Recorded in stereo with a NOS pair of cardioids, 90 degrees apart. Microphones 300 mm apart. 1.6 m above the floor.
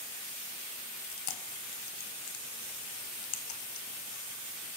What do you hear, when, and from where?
1.0 s chewing: 70° left, 1.0 m